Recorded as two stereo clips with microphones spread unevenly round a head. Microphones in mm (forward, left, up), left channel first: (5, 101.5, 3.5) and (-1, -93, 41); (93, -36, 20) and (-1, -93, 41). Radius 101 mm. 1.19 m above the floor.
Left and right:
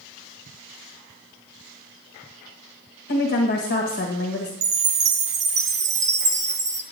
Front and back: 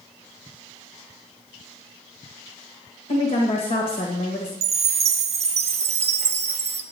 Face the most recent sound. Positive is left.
turn(degrees=-145)